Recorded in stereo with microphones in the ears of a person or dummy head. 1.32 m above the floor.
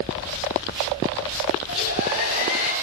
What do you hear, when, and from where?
1.7 s a hair dryer: 75° left (ahead or behind), 9.5 m